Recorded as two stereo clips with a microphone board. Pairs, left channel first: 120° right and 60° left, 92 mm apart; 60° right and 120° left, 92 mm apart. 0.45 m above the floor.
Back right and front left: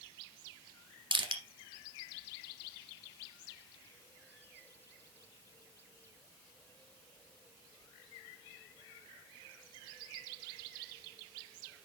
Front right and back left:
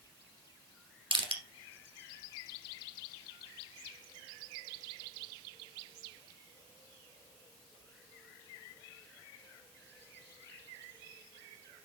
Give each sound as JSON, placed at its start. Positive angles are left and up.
{"t": 1.1, "sound": "crushing", "azimuth_deg": 95, "distance_m": 2.0}